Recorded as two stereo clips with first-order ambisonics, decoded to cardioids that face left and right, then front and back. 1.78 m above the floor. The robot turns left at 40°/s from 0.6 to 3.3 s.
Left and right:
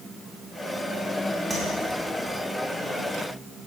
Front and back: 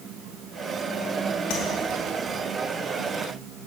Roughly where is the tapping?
Ahead.